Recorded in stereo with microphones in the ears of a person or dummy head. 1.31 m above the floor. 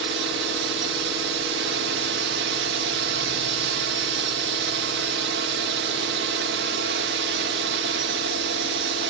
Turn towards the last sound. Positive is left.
turn(degrees=-55)  # may be behind; listen again after turning